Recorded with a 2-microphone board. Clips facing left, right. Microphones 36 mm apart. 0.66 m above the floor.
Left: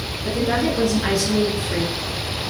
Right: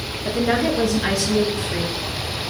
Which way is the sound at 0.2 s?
35° right (ahead or behind).